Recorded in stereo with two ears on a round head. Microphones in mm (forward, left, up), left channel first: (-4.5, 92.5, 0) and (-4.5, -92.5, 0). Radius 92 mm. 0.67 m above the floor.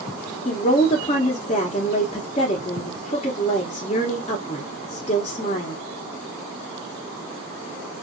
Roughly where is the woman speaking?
Left.